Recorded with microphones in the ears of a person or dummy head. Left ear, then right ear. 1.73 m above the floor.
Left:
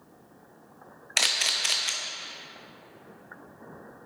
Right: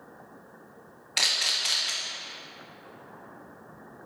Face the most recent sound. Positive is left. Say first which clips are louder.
# even
turn(degrees=30)  # may be behind; listen again after turning